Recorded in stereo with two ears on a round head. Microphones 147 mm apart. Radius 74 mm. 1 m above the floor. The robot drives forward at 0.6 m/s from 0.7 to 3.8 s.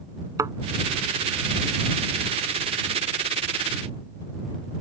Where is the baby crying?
I don't hear a baby crying.